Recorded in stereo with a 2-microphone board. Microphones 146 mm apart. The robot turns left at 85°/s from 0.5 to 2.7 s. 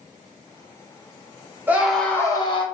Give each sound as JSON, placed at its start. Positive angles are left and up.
{"t": 1.7, "sound": "a scream", "azimuth_deg": -160, "distance_m": 0.8}